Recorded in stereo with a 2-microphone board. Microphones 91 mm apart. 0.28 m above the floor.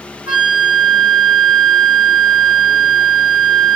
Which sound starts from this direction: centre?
A flute, at 0.3 s.